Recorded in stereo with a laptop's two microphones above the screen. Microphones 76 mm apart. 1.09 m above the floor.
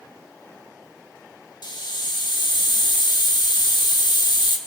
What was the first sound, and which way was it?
A hiss, 70° left (ahead or behind).